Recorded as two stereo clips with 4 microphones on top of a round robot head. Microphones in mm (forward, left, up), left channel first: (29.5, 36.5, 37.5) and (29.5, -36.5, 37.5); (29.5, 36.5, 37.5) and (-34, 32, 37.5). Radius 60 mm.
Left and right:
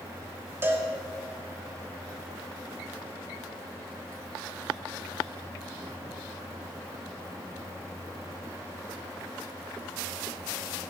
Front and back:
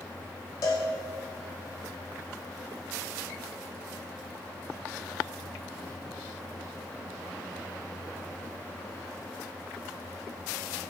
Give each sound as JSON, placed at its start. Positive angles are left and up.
{"t": 0.6, "sound": "a cowbell", "azimuth_deg": -30, "distance_m": 2.5}